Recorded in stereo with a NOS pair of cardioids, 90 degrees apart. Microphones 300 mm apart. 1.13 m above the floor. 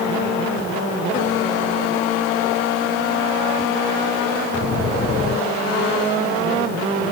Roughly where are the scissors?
I don't hear scissors.